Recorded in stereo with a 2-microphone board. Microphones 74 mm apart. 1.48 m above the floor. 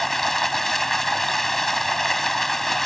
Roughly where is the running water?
Centre.